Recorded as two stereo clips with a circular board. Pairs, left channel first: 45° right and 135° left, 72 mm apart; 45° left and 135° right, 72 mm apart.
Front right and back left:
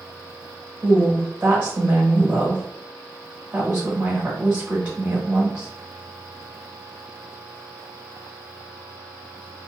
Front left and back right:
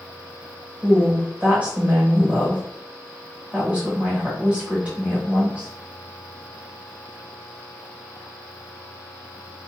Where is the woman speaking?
175° left, 1.0 m.